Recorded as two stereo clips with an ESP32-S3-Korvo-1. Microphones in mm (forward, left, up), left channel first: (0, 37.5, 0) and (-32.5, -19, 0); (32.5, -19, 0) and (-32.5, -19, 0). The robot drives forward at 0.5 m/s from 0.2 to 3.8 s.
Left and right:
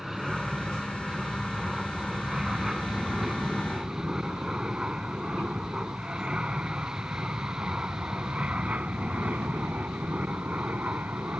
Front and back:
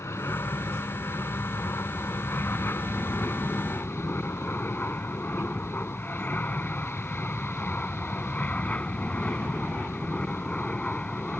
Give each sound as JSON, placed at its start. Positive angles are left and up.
{"t": 0.0, "sound": "an aircraft", "azimuth_deg": -30}